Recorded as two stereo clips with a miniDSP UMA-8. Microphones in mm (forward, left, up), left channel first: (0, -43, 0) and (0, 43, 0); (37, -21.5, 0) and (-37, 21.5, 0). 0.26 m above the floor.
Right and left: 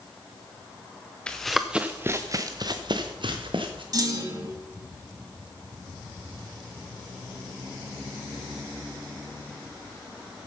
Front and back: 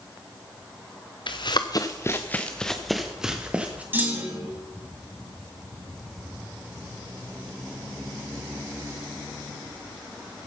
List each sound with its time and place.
1.3 s running footsteps: 10° right, 1.4 m; by 3.8 s 75° left, 2.5 m
3.9 s a clunk: 95° left, 2 m